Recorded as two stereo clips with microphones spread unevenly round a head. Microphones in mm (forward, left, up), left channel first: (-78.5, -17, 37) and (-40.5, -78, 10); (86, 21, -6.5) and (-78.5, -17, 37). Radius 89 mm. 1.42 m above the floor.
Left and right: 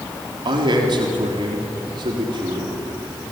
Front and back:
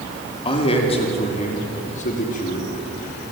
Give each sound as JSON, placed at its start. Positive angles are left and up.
{"t": 0.5, "sound": "a man speaking", "azimuth_deg": -50, "distance_m": 4.0}